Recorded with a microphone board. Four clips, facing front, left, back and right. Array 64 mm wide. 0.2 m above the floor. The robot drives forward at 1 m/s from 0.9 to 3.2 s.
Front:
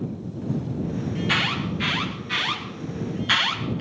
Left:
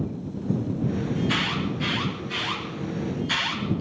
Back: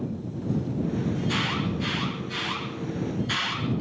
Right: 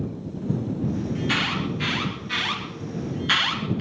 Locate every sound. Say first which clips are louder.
1.1 s an alarm: even, front 3 dB; 25° right, 4.5 m; by 3.8 s 45° right, 3 m